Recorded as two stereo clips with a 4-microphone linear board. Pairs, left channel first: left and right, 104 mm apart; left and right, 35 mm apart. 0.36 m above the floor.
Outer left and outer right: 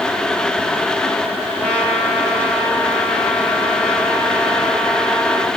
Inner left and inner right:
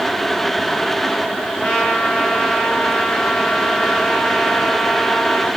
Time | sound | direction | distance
1.6 | a trumpet | 10° left (ahead or behind) | 2.5 m